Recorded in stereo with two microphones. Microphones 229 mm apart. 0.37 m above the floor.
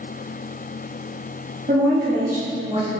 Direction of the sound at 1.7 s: 50° right (ahead or behind).